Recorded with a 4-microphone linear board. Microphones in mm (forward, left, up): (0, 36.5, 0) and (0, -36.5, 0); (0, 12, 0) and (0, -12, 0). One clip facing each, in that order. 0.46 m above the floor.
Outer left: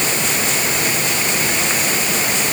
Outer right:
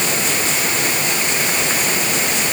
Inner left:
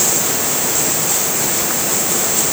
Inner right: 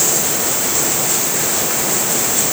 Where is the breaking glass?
I don't hear breaking glass.